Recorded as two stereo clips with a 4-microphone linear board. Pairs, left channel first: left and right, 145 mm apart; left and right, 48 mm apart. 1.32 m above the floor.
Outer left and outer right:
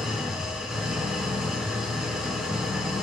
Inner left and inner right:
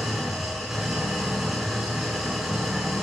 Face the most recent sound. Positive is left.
turn(degrees=-5)  # may be behind; listen again after turning